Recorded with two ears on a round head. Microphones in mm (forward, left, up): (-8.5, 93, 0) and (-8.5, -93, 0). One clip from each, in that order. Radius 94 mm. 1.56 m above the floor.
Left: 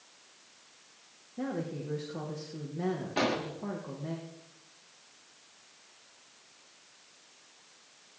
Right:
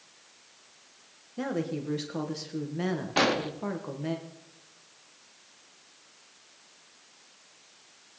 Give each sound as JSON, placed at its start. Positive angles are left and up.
{"t": 1.4, "sound": "a woman speaking", "side_deg": -75, "distance_m": 1.6}
{"t": 3.2, "sound": "an explosion", "side_deg": -40, "distance_m": 1.1}